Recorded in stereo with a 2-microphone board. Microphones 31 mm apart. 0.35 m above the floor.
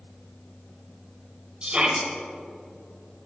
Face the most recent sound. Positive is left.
turn(degrees=-35)  # may be behind; listen again after turning